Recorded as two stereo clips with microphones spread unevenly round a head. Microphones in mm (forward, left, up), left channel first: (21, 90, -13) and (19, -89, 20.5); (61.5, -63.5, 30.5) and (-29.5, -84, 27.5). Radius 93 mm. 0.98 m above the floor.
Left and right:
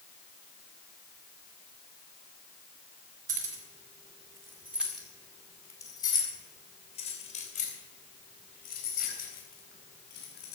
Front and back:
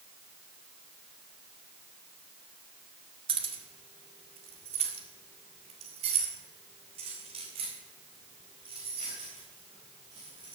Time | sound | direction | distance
3.3 | keys jangling | 145° right | 1.9 m